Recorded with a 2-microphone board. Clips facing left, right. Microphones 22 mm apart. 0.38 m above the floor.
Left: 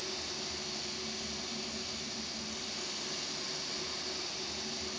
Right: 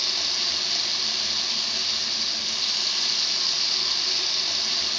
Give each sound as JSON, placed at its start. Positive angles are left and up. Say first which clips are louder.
{"t": 0.0, "sound": "running water", "louder": "right 14 dB", "side_deg": -75, "distance_m": 1.5}